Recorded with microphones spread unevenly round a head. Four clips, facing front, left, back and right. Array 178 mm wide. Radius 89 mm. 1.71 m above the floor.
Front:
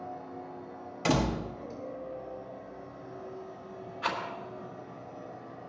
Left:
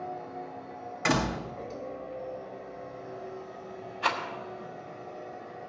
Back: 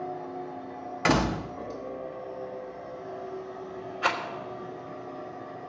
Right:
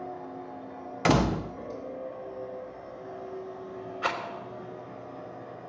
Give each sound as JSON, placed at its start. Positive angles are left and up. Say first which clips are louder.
{"t": 0.0, "sound": "a machine running", "louder": "left 1 dB, back 6 dB", "azimuth_deg": -140, "distance_m": 4.0}
{"t": 1.1, "sound": "a door slam", "louder": "right 4 dB, back 3 dB", "azimuth_deg": -125, "distance_m": 0.5}
{"t": 4.0, "sound": "a rattle", "louder": "left 2 dB, back 5 dB", "azimuth_deg": -145, "distance_m": 2.0}